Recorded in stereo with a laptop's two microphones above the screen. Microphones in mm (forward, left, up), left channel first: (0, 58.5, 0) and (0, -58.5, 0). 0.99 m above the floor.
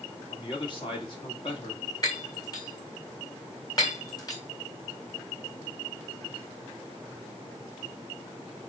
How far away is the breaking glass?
About 3 m.